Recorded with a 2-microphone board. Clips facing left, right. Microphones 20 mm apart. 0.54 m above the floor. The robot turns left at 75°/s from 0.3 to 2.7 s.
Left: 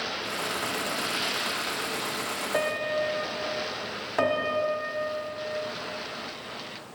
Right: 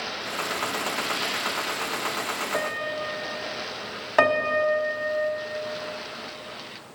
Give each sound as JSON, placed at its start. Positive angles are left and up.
{"t": 2.5, "sound": "a piano", "side_deg": 20, "distance_m": 1.7}
{"t": 4.2, "sound": "a piano", "side_deg": -35, "distance_m": 1.2}